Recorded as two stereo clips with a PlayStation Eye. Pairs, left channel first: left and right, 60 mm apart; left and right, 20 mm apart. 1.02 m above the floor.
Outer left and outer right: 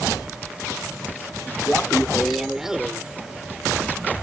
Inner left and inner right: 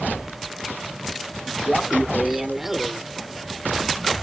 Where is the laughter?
10° left (ahead or behind); by 4.1 s 25° right (ahead or behind).